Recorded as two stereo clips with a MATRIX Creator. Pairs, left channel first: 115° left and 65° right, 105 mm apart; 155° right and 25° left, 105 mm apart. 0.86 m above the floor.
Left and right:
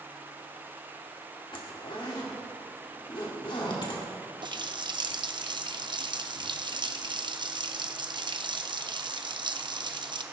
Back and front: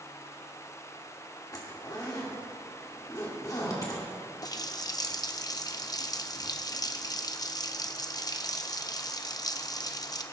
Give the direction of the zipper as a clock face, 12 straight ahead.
7 o'clock.